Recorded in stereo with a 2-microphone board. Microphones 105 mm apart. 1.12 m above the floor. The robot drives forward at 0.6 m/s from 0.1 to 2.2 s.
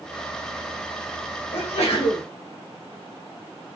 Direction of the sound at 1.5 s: 90° left.